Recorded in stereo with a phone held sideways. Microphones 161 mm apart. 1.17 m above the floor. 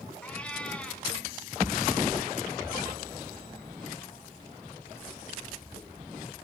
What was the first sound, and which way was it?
A cat meowing, 10° left (ahead or behind).